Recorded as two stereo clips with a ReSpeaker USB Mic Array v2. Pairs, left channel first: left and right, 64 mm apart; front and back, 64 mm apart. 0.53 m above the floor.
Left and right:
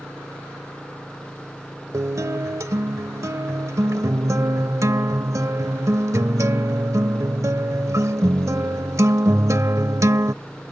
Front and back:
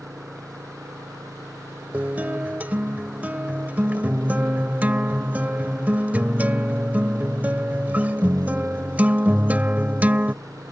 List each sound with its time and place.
0.0 s an engine running: 165° left
1.9 s a guitar: 120° right